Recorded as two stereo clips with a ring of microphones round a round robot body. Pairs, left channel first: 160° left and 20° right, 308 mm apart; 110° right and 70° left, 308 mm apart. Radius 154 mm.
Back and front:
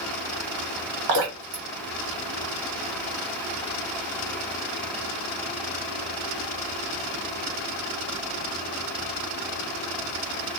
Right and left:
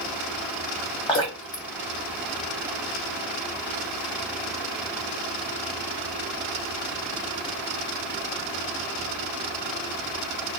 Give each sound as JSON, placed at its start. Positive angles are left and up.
{"t": 1.1, "sound": "dripping", "azimuth_deg": -40, "distance_m": 1.5}